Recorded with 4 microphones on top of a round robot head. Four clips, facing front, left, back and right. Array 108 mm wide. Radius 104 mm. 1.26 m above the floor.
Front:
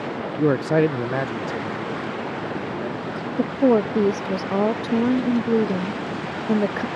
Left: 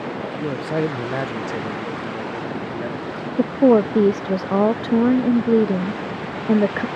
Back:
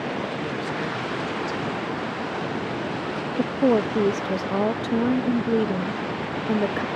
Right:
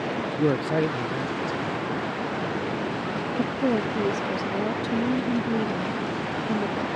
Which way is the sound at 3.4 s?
75° left.